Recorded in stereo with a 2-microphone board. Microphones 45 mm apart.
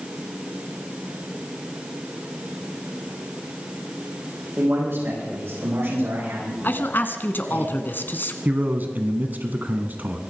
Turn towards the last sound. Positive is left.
turn(degrees=-40)  # may be behind; listen again after turning